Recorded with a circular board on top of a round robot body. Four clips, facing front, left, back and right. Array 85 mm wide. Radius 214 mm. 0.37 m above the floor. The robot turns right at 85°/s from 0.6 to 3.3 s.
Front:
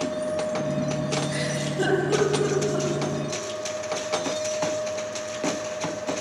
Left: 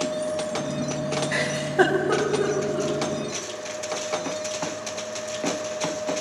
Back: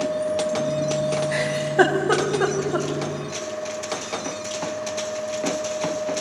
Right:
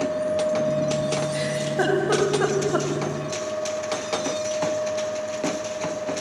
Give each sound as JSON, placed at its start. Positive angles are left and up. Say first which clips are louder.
{"t": 1.3, "sound": "a giggle", "louder": "left 1 dB, back 7 dB", "azimuth_deg": 120, "distance_m": 3.5}